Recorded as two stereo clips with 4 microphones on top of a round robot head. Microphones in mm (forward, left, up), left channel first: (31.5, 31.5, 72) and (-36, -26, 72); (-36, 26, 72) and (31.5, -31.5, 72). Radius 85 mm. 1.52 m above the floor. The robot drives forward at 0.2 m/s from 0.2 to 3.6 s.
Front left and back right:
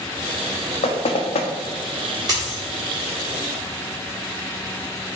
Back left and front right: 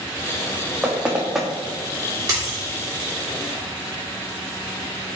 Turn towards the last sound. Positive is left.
turn(degrees=-105)